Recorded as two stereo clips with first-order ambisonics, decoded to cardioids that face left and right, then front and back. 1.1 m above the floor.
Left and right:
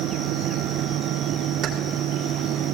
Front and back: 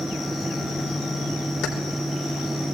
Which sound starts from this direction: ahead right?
Keys jangling, at 1.6 s.